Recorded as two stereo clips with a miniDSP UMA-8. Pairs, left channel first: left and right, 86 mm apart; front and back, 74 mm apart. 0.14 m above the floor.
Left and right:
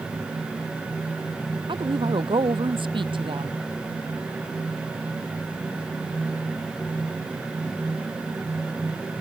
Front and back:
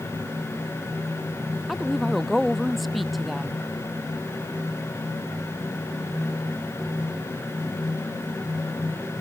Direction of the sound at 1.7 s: 90° right.